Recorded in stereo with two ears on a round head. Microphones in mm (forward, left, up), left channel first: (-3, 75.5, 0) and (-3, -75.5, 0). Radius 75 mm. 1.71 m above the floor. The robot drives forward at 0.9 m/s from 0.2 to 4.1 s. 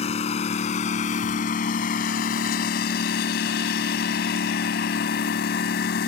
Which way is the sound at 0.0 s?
40° left (ahead or behind).